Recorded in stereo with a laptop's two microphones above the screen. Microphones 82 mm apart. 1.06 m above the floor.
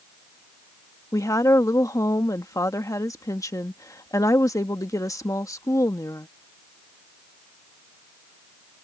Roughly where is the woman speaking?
Left.